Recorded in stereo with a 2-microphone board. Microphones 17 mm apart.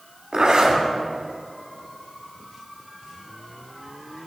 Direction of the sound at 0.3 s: 55° right (ahead or behind).